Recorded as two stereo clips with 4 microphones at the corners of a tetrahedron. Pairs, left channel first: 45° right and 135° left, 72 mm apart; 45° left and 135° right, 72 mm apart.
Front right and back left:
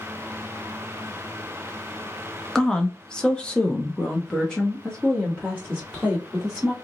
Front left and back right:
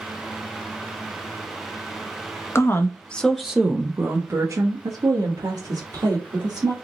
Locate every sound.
2.5 s a woman speaking: 30° left, 0.7 m; by 6.7 s 130° right, 1.8 m